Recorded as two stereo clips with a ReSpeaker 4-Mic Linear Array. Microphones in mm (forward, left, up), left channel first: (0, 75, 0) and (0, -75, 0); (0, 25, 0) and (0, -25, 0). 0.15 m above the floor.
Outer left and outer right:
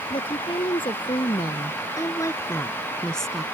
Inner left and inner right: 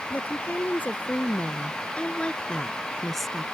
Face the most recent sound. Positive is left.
turn(degrees=-5)  # may be behind; listen again after turning